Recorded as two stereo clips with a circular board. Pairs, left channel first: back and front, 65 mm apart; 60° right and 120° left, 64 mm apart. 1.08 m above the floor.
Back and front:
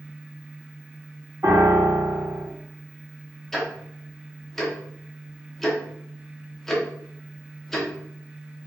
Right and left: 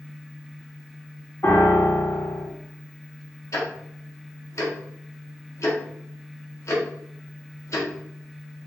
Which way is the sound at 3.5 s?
95° right.